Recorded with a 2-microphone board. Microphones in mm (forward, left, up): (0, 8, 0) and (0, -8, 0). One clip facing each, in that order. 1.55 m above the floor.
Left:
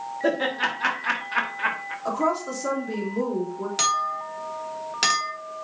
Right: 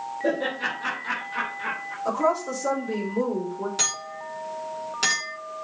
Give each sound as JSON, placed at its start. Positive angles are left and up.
{"t": 0.2, "sound": "laughter", "side_deg": 80, "distance_m": 2.0}
{"t": 2.0, "sound": "a woman speaking", "side_deg": 25, "distance_m": 3.5}
{"t": 3.8, "sound": "a clink", "side_deg": 30, "distance_m": 2.5}